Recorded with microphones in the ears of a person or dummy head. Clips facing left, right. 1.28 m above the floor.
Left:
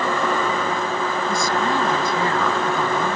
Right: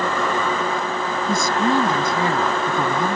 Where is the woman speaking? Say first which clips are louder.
Right 5 dB; 20° right (ahead or behind).